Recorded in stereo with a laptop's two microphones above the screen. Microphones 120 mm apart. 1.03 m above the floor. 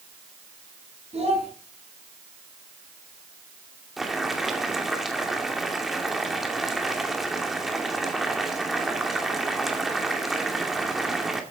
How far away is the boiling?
About 2.5 m.